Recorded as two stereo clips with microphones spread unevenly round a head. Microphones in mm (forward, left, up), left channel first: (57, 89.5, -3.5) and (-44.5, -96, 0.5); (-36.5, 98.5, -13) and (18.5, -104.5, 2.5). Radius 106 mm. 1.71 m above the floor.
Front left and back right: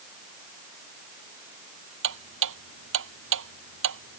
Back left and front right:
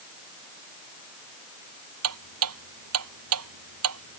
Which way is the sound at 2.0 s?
90° right.